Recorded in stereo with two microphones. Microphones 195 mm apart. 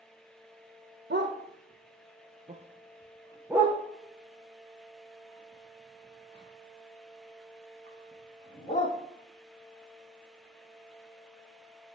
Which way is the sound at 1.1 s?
65° right (ahead or behind).